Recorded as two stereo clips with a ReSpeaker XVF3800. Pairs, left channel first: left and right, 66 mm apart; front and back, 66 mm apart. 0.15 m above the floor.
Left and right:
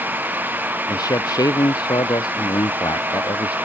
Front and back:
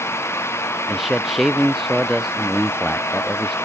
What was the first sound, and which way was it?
A man speaking, 90° left.